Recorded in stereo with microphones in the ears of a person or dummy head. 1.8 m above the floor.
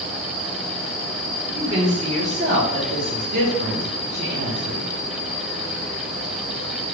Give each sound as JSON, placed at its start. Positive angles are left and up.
{"t": 1.5, "sound": "a woman speaking", "side_deg": -30, "distance_m": 1.6}